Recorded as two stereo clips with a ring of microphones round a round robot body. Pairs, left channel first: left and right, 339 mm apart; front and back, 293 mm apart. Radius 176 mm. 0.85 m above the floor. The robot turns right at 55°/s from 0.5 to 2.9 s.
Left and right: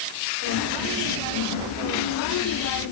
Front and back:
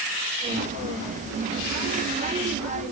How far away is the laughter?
I don't hear laughter.